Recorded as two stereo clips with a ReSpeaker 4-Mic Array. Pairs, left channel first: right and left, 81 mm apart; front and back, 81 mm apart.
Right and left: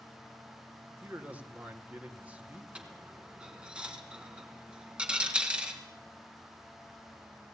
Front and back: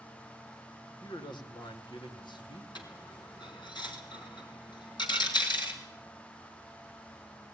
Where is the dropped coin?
15° left, 3.5 m.